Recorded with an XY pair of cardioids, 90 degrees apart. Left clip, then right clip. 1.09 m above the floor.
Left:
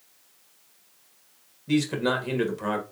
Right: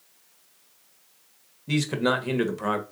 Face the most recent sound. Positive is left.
turn(degrees=-25)